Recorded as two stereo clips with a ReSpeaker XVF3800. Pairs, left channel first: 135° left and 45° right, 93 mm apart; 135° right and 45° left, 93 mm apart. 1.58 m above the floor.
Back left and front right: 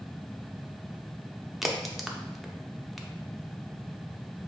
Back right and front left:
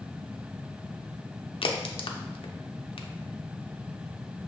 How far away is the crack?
About 0.5 m.